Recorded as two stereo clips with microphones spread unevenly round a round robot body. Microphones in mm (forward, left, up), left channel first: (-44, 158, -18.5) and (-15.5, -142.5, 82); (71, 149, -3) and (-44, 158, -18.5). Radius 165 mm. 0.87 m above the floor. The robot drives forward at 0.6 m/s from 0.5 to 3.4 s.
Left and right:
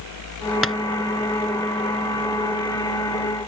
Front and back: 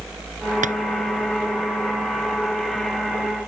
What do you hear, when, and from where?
0.6 s tapping: 170° right